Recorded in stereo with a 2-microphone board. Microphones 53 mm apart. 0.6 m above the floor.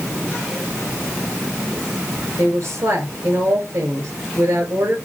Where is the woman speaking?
65° right (ahead or behind), 3 m.